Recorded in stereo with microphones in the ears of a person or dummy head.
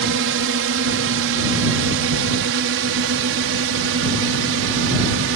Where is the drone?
60° right (ahead or behind); by 5.4 s 65° right (ahead or behind).